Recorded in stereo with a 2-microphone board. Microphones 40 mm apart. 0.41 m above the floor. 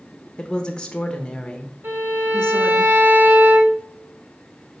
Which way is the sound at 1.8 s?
60° right (ahead or behind).